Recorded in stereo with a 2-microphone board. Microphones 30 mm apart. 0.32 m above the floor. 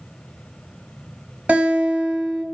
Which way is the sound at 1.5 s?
55° right (ahead or behind).